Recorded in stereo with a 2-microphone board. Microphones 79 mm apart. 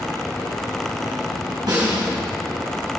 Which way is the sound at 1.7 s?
55° right (ahead or behind).